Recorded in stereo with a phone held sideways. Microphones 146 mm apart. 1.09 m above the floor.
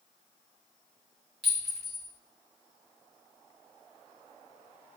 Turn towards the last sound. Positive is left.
turn(degrees=0)  # may be behind; listen again after turning